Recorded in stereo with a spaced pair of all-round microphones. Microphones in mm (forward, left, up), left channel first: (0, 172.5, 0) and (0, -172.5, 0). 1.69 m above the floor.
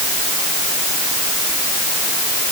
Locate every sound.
Only background noise.